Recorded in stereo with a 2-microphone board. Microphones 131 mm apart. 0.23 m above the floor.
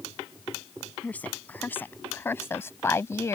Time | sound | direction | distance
1.0 | a woman speaking | 15° left (ahead or behind) | ?